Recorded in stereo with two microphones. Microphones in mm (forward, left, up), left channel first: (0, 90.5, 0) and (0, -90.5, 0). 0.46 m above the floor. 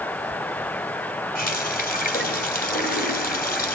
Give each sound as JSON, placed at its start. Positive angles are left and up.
{"t": 1.4, "sound": "a running tap", "side_deg": 55, "distance_m": 2.0}